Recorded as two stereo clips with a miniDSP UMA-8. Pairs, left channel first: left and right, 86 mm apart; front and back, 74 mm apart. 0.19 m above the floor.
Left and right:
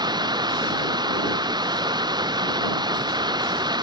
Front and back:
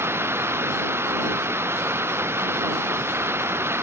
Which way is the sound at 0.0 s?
125° right.